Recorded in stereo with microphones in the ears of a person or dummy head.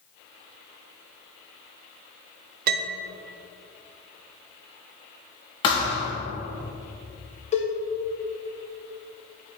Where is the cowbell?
35° left (ahead or behind), 1.0 m.